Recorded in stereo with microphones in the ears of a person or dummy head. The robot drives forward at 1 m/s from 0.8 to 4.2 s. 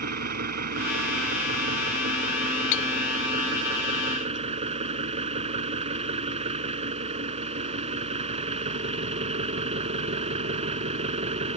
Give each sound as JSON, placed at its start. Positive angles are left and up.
{"t": 0.0, "sound": "an engine running", "side_deg": -60}
{"t": 2.7, "sound": "cutlery clinking", "side_deg": 65}